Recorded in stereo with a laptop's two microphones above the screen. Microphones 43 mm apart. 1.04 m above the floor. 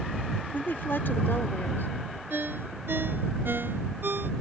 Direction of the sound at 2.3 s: 60° right (ahead or behind).